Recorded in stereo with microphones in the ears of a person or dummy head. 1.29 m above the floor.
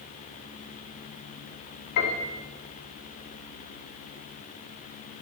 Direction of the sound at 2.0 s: 60° left (ahead or behind).